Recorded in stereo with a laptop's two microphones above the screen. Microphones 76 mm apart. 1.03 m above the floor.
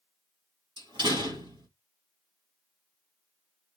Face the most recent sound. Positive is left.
turn(degrees=-75)  # may be behind; listen again after turning